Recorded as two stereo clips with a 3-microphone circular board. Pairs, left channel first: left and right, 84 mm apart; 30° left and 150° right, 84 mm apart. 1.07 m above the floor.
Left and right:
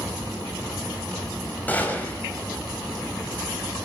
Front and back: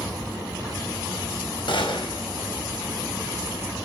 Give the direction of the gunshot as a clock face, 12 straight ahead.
11 o'clock.